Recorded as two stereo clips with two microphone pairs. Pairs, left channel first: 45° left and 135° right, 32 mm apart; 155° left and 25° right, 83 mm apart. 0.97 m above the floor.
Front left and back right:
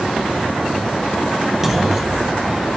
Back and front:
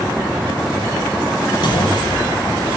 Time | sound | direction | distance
1.6 | a clunk | 145° left | 1.0 m